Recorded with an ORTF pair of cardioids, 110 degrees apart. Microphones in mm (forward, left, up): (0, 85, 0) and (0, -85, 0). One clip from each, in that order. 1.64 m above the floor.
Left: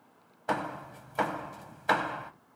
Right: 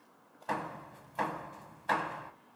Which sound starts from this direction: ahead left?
Hammering, at 0.5 s.